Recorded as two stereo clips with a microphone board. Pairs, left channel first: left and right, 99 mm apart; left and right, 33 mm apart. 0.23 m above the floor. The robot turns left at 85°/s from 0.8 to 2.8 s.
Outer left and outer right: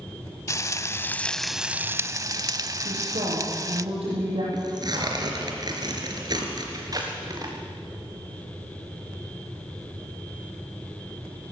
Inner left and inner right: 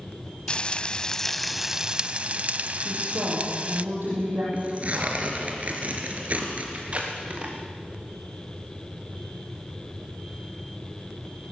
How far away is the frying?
About 0.6 m.